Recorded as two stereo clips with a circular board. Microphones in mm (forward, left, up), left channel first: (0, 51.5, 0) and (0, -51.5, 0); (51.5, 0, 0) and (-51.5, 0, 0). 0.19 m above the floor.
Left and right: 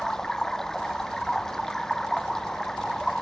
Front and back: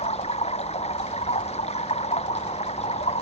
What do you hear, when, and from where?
0.0 s running water: 5° left